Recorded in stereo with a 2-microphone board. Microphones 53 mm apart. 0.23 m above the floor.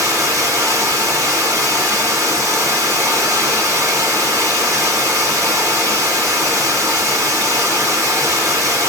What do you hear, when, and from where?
0.0 s running water: 65° right (ahead or behind), 2.5 m